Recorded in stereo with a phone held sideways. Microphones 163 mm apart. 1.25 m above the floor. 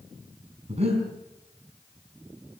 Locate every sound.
0.7 s breathing: 40° right (ahead or behind), 5 m